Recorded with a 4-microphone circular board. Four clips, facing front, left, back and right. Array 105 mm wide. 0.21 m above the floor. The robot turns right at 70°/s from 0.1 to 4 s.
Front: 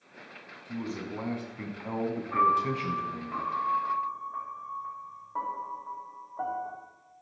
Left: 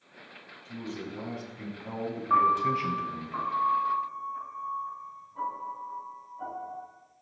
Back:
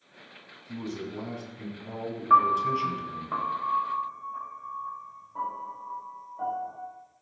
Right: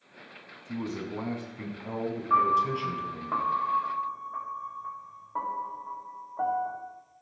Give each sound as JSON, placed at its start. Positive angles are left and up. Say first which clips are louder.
{"t": 0.7, "sound": "a man speaking", "louder": "right 4 dB, even", "azimuth_deg": -95, "distance_m": 1.8}
{"t": 2.3, "sound": "a piano", "louder": "even, back 5 dB", "azimuth_deg": 175, "distance_m": 3.5}